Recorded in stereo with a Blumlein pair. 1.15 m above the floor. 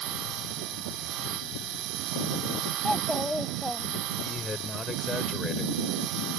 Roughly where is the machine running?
Ahead right.